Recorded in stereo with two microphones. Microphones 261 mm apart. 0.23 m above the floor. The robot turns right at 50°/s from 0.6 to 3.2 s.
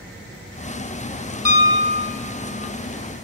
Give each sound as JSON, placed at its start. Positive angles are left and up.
{"t": 1.4, "sound": "a piano", "azimuth_deg": 160, "distance_m": 1.3}